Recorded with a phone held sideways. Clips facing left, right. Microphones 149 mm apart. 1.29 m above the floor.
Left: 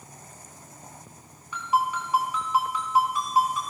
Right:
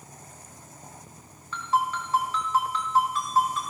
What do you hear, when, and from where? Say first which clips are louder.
1.5 s a ringtone: left 1 dB; 15° left (ahead or behind), 4.5 m